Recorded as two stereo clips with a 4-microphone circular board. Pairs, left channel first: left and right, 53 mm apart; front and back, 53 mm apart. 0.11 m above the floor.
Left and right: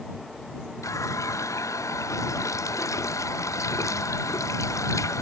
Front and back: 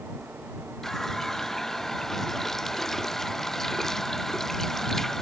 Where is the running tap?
80° left.